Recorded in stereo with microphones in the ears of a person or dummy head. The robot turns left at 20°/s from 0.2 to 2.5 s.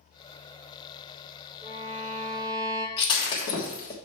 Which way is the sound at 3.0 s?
30° left (ahead or behind).